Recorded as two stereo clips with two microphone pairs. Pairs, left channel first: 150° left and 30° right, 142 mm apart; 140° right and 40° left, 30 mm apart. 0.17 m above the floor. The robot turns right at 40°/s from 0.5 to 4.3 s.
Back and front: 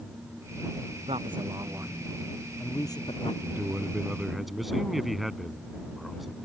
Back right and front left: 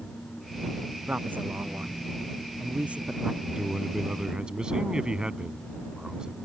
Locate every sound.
1.1 s a man speaking: 15° left; by 3.3 s 105° left
3.4 s a man speaking: 20° left; by 6.3 s 60° left